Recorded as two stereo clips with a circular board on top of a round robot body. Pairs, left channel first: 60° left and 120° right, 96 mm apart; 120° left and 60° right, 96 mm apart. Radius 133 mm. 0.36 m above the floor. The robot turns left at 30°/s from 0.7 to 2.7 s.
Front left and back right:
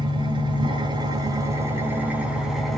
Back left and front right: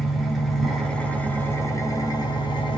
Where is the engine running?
150° right, 2.5 m; by 2.8 s 150° left, 2.5 m.